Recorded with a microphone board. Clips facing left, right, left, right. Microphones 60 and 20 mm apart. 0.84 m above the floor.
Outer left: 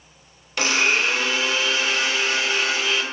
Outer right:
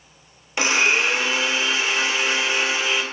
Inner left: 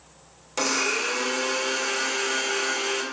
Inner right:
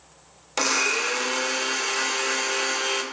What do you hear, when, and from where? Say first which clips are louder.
0.6 s a blender: outer right 1 dB, inner right 2 dB; 20° right (ahead or behind), 0.5 m